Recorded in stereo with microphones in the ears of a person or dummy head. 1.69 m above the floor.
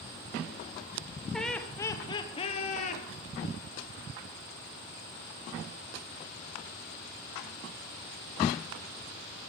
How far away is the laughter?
About 1.0 m.